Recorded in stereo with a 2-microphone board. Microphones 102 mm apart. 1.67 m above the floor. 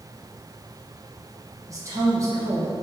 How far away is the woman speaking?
About 1.1 m.